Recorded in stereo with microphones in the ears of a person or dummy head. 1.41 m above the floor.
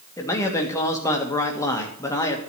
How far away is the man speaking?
About 1.6 m.